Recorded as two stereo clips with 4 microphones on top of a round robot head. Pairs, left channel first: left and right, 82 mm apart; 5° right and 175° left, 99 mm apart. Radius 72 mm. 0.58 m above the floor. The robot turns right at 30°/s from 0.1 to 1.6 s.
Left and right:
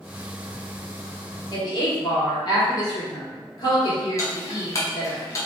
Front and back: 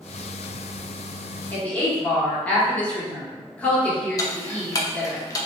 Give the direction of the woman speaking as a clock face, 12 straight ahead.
10 o'clock.